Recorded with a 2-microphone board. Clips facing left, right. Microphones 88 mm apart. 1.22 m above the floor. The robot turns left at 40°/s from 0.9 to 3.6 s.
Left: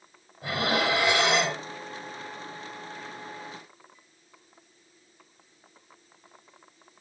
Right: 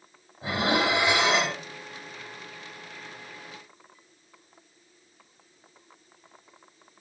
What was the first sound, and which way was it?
Dishes clattering, 25° right (ahead or behind).